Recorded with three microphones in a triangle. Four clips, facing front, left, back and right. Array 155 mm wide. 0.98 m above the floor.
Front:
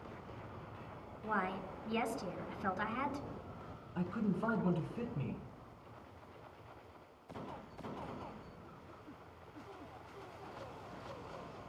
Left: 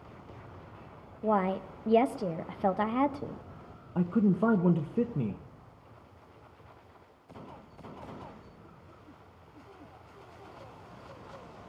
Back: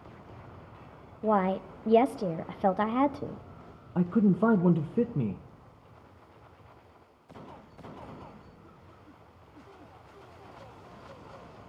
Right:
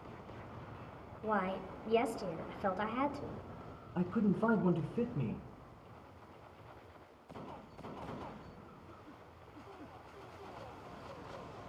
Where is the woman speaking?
155° left, 0.7 m.